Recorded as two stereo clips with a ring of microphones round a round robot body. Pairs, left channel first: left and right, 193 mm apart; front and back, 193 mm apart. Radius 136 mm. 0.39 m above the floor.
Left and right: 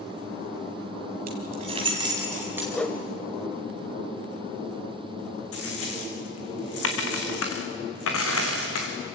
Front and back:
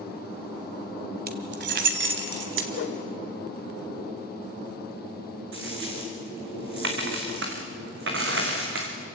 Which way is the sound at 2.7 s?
5° left.